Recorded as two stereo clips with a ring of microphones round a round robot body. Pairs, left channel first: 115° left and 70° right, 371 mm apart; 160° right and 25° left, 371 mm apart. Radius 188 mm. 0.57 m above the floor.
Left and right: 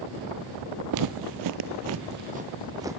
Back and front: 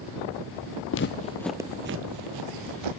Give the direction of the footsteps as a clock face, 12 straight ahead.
3 o'clock.